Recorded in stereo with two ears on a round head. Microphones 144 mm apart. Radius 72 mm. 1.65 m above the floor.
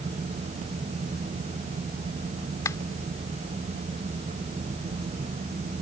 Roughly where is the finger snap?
Centre.